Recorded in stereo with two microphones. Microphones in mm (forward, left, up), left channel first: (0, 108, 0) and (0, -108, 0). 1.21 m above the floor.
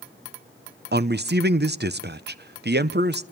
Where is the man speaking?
50° right (ahead or behind), 0.8 m.